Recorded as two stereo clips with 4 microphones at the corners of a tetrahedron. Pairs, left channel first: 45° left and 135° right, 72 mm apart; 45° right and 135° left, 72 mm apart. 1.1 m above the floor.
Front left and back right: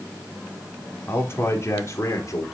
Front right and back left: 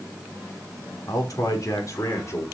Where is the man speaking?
10° right, 3.5 m; by 2.4 s 5° left, 4 m.